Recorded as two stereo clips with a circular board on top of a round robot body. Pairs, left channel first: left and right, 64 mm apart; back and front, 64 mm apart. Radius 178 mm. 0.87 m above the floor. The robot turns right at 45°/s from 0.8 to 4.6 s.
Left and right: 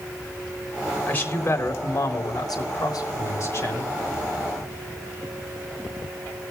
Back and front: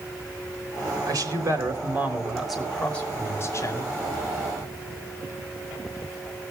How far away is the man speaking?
About 4 m.